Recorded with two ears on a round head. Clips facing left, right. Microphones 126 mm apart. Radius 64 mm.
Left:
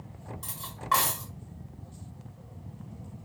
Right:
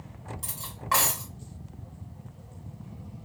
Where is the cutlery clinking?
10° right (ahead or behind), 1.2 m.